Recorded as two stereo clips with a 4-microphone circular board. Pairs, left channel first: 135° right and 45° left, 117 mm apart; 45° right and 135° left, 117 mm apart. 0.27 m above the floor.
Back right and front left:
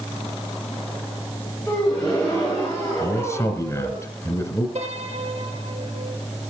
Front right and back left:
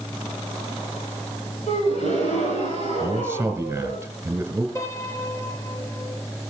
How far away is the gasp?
About 8 m.